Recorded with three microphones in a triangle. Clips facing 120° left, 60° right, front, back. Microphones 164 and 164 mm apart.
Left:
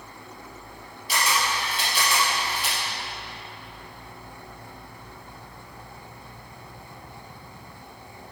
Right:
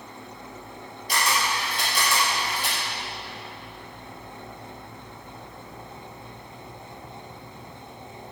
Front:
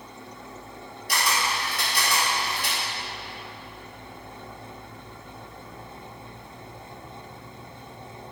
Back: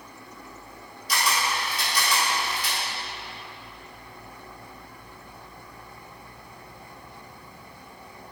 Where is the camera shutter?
20° right, 1.9 m.